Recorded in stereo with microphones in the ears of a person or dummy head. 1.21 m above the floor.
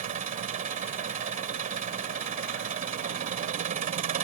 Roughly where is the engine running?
Right.